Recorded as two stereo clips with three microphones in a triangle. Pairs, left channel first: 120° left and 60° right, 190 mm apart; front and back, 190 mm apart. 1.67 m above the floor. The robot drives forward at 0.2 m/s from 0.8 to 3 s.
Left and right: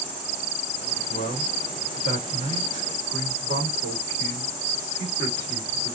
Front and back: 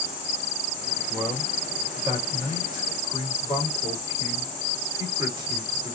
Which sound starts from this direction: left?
A man speaking, at 1.1 s.